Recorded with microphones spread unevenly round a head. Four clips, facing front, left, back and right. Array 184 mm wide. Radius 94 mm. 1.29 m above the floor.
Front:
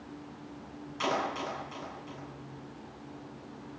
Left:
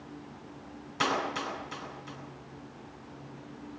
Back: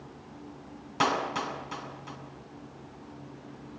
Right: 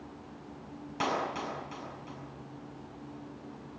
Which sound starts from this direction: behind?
A clap, at 1.0 s.